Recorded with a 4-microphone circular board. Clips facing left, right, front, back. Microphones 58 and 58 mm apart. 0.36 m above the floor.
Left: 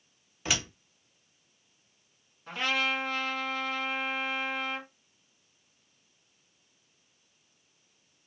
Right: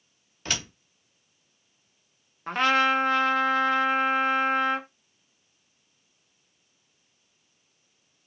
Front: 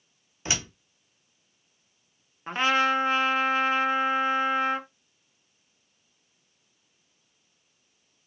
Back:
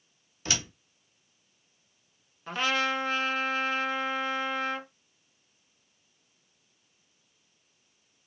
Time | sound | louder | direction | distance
0.5 | a door slam | left 1 dB, front 1 dB | 15° left | 0.6 m
2.5 | a trumpet | right 8 dB, front 5 dB | 55° right | 0.6 m